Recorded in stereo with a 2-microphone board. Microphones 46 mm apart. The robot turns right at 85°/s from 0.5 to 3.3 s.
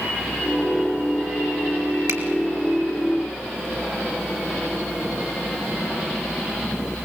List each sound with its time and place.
2.1 s a finger snap: 75° right (ahead or behind), 3 m; by 2.2 s 70° right (ahead or behind), 3 m